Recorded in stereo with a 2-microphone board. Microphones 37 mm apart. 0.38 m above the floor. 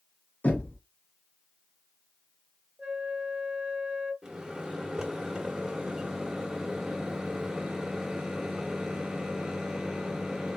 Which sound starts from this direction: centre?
A microwave, at 4.2 s.